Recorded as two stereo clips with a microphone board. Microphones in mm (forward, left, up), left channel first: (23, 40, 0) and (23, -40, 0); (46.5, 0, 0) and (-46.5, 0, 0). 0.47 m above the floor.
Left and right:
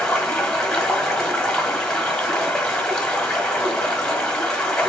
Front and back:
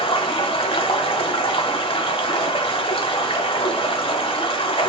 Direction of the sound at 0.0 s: 10° left.